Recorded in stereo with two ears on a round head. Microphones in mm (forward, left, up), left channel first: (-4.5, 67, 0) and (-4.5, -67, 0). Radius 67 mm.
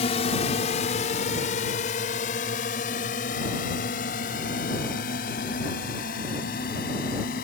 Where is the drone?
45° left (ahead or behind); by 7.5 s 70° left (ahead or behind).